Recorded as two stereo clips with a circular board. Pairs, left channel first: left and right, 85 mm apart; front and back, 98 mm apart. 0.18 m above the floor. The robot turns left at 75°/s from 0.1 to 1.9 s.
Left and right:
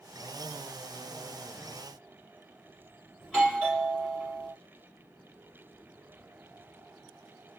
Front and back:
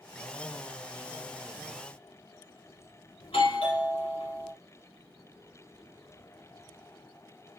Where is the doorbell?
10° left, 4.5 m.